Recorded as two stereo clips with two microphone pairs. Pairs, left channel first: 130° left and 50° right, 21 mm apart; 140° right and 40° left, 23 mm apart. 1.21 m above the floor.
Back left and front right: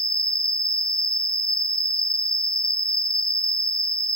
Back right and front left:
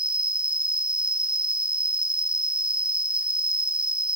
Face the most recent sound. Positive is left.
turn(degrees=80)